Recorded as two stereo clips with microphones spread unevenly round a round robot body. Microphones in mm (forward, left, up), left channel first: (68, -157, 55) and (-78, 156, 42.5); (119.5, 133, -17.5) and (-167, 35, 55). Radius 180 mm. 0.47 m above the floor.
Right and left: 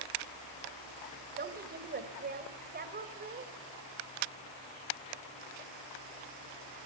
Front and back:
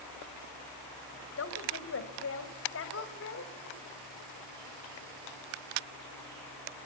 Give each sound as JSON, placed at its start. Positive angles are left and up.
{"t": 1.4, "sound": "a woman speaking", "azimuth_deg": 55, "distance_m": 2.5}